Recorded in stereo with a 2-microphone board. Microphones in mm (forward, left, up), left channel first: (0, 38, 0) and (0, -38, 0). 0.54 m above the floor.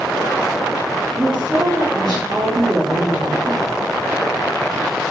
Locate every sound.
1.1 s a woman speaking: 60° right (ahead or behind), 4.5 m